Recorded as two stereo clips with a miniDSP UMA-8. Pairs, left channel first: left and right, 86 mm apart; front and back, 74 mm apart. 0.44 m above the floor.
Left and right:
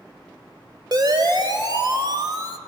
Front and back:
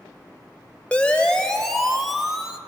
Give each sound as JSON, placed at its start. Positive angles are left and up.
{"t": 0.9, "sound": "a siren", "azimuth_deg": -70, "distance_m": 2.5}